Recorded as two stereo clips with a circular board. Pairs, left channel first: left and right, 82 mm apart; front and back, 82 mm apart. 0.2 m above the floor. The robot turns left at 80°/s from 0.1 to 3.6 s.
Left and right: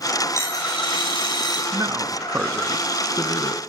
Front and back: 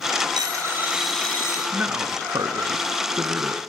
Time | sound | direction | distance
0.4 | a dropped coin | 150° left | 10 m
1.7 | a man speaking | 110° right | 1.7 m